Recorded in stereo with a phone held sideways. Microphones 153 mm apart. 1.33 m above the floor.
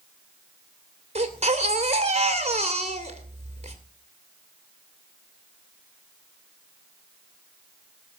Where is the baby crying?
45° right (ahead or behind), 2.5 m.